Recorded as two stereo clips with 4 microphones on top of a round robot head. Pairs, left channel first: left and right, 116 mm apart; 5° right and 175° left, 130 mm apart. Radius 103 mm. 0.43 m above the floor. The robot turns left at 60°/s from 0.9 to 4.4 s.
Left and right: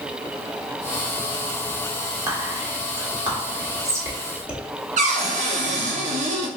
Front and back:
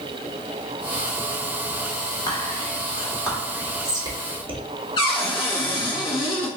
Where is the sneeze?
I don't hear a sneeze.